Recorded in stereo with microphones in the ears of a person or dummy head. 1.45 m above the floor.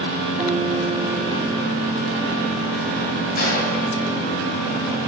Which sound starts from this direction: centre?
A guitar, at 0.4 s.